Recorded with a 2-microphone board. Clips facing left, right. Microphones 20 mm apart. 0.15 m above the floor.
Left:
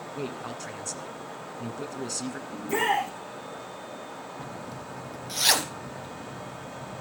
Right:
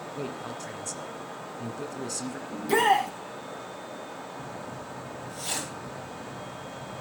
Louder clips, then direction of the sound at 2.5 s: Right 4 dB; 80° right.